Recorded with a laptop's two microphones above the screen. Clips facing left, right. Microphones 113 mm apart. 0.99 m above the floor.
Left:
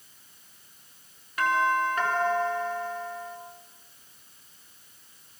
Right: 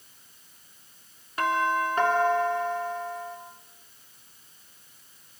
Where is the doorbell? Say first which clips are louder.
Left 1 dB; 30° right (ahead or behind), 3 m.